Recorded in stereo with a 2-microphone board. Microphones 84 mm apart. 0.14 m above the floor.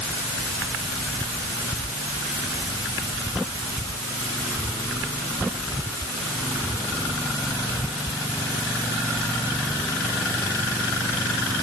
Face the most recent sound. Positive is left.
No sound to turn to.